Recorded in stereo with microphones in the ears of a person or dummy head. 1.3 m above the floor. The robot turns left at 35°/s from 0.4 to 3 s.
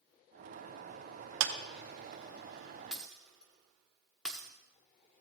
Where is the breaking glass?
5° right (ahead or behind), 0.8 m; by 4.5 s centre (ahead or behind), 0.8 m.